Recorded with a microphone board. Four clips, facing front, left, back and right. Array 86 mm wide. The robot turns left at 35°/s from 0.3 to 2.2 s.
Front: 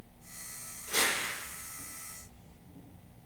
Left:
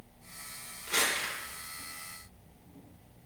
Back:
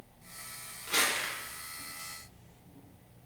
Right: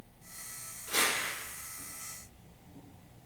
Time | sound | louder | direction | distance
0.9 | crumpling | even, back 1 dB | 150° left | 0.9 m